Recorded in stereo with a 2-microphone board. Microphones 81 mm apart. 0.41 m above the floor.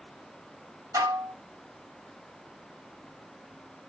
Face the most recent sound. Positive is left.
turn(degrees=-45)  # may be behind; listen again after turning